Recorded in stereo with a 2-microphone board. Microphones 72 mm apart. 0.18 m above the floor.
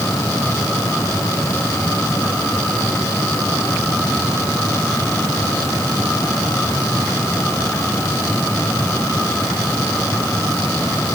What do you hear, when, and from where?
Only background noise.